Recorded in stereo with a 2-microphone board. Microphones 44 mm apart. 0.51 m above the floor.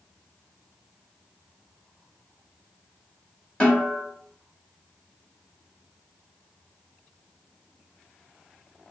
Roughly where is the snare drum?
Left.